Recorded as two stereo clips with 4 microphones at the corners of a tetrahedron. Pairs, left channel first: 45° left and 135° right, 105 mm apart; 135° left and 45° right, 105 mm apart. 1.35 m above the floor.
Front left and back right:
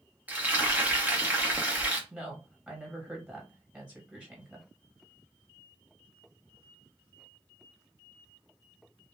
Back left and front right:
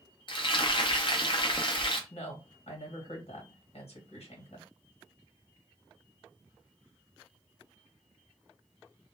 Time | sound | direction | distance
0.3 | frying | 155° left | 0.6 m
2.1 | a woman speaking | 145° left | 1.2 m